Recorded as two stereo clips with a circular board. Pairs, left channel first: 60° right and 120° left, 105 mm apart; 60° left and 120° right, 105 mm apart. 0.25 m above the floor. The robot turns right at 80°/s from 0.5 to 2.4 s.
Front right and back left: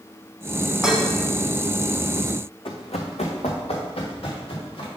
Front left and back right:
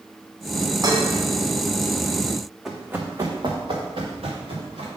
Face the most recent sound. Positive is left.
turn(degrees=-100)